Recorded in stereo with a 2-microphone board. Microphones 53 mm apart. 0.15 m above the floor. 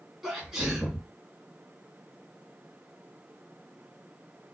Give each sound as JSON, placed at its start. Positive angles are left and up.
{"t": 0.2, "sound": "a sneeze", "side_deg": -10, "distance_m": 1.3}